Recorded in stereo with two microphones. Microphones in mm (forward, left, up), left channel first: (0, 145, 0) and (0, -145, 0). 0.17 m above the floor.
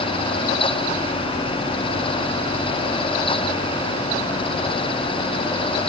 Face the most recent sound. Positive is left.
No sound to turn to.